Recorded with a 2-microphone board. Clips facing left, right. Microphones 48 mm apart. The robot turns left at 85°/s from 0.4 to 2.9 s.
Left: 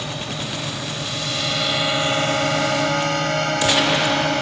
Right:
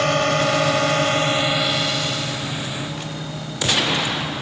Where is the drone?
60° right (ahead or behind); by 4.4 s 65° left (ahead or behind).